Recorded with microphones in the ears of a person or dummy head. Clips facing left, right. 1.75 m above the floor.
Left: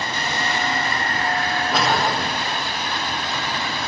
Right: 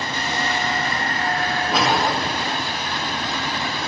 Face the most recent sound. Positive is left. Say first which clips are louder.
# right 1 dB
turn(degrees=-10)  # may be behind; listen again after turning